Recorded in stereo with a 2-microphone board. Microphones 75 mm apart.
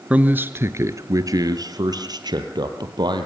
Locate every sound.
0.1 s a man speaking: 15° right (ahead or behind), 1.3 m; by 3.3 s 70° right (ahead or behind), 3.5 m